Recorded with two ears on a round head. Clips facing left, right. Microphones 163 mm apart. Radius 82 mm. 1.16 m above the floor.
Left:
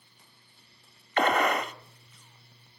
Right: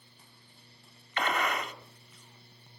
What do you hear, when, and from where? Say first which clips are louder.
1.2 s a gunshot: left 7 dB; 40° left (ahead or behind), 1.7 m